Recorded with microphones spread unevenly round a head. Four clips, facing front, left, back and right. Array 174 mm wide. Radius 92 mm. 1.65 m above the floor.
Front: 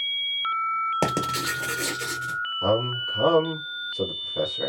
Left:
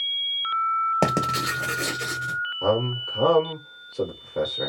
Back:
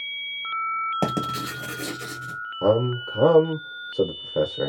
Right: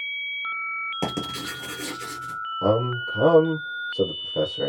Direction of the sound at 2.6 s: 170° right.